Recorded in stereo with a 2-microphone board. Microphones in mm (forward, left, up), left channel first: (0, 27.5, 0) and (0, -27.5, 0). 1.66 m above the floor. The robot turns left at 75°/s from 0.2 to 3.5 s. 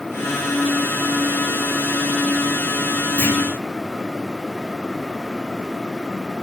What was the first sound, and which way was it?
A clunk, 30° left (ahead or behind).